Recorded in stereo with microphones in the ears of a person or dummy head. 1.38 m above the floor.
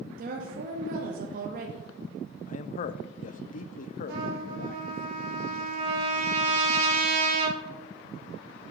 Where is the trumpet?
65° right (ahead or behind), 2.5 m.